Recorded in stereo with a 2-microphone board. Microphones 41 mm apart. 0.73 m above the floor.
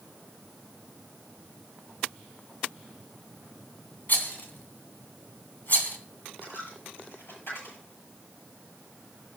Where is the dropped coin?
60° left (ahead or behind), 8 m.